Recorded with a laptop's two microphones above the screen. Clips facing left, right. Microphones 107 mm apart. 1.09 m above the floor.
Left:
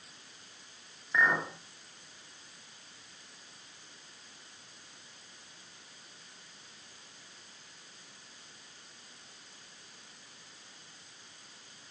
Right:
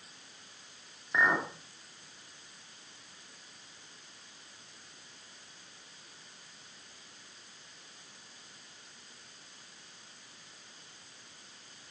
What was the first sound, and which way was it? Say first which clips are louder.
A clink: even; 15° right (ahead or behind).